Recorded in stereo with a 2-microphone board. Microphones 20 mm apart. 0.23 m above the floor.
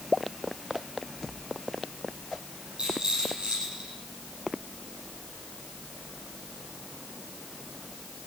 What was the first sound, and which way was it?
A rattle, 45° right (ahead or behind).